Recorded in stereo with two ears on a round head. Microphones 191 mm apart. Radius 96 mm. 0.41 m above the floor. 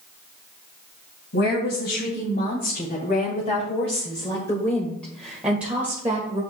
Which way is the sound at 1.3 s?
55° left (ahead or behind).